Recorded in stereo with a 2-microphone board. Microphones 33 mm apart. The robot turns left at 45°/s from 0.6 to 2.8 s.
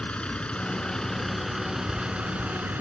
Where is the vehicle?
35° left; by 2.8 s 65° right.